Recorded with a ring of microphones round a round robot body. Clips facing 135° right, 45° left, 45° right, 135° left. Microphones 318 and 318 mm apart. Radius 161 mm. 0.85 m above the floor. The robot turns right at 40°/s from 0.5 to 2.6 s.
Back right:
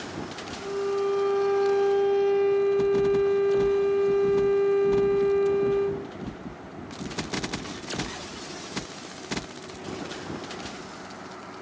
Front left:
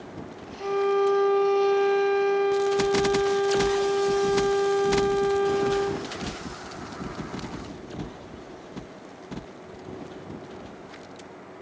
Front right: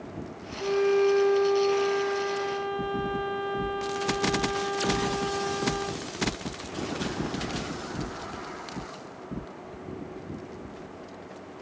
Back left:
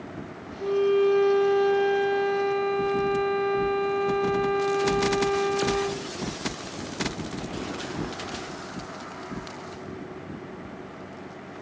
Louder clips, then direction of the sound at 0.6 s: Front left 4 dB, back left 2 dB; 50° left.